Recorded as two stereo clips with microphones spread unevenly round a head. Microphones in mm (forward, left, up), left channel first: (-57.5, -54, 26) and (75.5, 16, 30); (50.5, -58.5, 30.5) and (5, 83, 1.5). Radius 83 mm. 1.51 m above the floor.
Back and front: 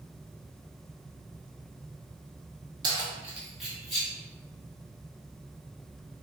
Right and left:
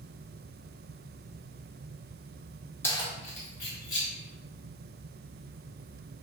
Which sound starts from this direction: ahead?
Keys jangling, at 2.8 s.